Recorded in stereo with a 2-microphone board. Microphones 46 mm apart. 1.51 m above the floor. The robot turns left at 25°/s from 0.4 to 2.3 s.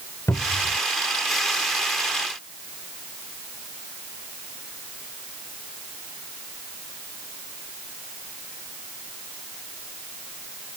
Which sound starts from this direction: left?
A cupboard door, at 0.3 s.